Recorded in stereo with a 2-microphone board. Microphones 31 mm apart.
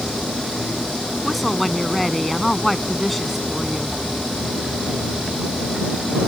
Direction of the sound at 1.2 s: Centre (ahead or behind).